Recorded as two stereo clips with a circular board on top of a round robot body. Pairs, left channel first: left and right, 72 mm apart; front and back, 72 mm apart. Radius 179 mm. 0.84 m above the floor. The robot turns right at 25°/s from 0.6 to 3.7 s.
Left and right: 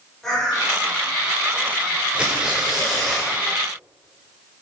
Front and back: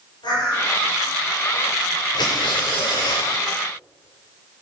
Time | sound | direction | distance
0.2 | a bird | 5° left | 4.5 m
2.1 | tearing paper | 15° right | 0.7 m